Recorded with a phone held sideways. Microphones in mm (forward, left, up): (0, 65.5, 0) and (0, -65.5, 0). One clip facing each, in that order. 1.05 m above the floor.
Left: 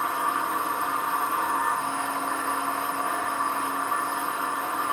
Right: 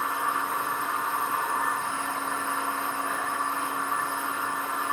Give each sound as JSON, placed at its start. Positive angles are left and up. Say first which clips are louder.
{"t": 0.0, "sound": "a machine running", "louder": "left 2 dB", "side_deg": 60, "distance_m": 1.2}